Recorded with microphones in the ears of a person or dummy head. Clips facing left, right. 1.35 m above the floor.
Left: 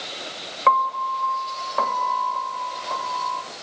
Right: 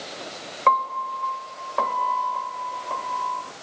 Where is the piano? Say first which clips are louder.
Left 2 dB; 5° left (ahead or behind), 1.9 m.